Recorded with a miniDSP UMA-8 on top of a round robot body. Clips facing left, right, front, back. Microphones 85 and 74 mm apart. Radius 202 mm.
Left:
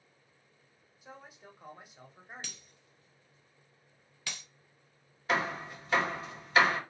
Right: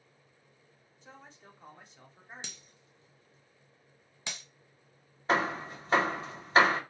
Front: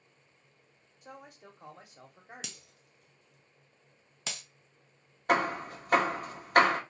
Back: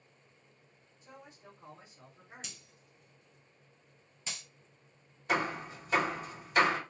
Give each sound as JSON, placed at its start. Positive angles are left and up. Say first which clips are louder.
{"t": 1.0, "sound": "a man speaking", "louder": "left 2 dB, front 4 dB", "azimuth_deg": 10, "distance_m": 1.1}
{"t": 2.4, "sound": "breaking glass", "louder": "right 1 dB, front 3 dB", "azimuth_deg": -20, "distance_m": 0.5}
{"t": 5.3, "sound": "hammering", "louder": "right 3 dB, front 4 dB", "azimuth_deg": -35, "distance_m": 0.9}